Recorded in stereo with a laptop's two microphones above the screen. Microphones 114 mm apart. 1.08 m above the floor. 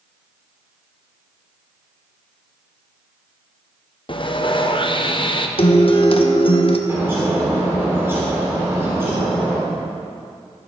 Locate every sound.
4.1 s sawing: 45° left (ahead or behind), 0.7 m
5.6 s a guitar: 55° left (ahead or behind), 0.7 m
6.9 s a bird: 20° right (ahead or behind), 1.7 m